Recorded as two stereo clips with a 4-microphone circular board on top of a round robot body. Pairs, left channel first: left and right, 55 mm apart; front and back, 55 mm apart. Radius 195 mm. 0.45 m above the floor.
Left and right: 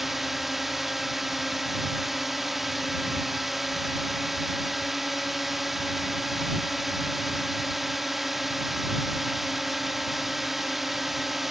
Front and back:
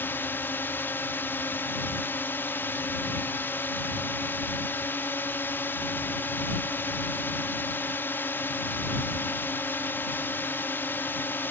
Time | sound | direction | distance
0.0 | a drone | 5° right | ?